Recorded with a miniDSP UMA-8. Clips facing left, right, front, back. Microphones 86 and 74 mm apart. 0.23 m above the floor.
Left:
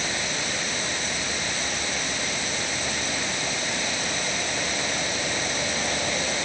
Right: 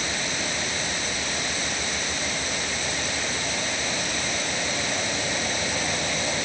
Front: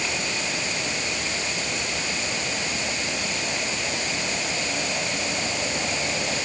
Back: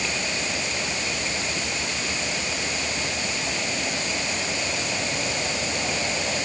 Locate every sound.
Only background noise.